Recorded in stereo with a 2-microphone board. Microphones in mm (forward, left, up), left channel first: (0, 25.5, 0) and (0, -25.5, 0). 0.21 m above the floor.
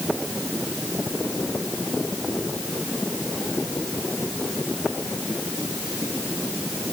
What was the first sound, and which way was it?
Only background noise.